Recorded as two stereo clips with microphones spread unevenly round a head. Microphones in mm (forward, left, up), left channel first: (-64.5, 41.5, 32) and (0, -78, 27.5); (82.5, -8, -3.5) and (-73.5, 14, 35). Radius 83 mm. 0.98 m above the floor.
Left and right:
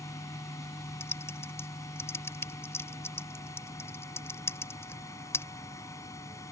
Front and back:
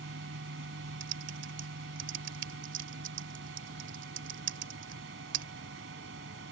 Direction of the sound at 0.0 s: 175° right.